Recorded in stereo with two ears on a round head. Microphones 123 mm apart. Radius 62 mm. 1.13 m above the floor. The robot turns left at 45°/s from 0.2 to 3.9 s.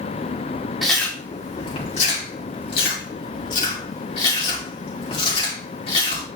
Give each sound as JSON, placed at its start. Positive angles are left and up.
{"t": 0.8, "sound": "chewing", "side_deg": 0, "distance_m": 2.5}